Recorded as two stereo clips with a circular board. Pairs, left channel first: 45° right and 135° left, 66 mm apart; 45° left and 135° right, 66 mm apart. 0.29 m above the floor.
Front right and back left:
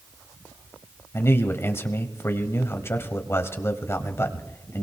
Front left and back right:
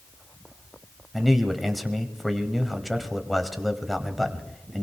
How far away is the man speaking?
About 1.2 m.